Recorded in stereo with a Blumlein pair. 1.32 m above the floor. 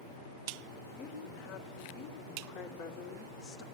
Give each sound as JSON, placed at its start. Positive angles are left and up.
{"t": 0.9, "sound": "a woman speaking", "azimuth_deg": 35, "distance_m": 4.5}